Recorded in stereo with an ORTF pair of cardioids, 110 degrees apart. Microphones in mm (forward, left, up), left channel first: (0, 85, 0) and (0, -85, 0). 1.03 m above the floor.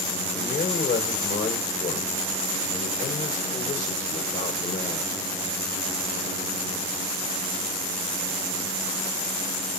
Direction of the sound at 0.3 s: 50° left.